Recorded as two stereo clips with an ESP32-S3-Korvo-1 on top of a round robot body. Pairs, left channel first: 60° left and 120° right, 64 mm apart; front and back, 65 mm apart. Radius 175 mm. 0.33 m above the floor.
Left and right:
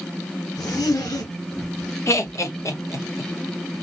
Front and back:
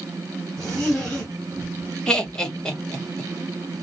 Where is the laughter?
75° left, 1.5 m.